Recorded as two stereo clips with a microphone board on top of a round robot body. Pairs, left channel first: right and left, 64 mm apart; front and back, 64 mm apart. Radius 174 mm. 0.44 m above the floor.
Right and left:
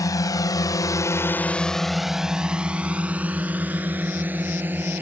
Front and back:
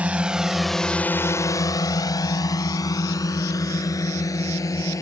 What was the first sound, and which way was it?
A drone, 110° right.